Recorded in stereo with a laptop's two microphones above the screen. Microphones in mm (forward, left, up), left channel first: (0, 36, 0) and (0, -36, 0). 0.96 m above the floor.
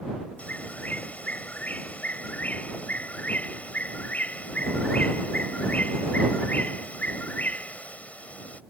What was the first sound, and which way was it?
A bird, 20° left (ahead or behind).